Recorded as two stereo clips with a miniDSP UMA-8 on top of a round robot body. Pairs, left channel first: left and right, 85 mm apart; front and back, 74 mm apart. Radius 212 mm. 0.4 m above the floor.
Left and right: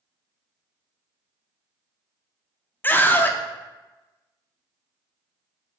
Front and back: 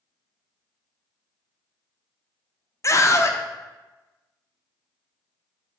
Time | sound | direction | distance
2.8 | a scream | 30° left | 1.2 m